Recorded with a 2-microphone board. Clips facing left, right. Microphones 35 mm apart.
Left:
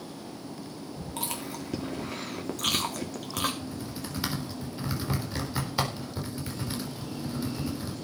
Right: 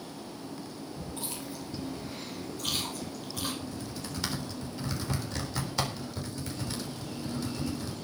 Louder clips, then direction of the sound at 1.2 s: Left 7 dB; 70° left (ahead or behind).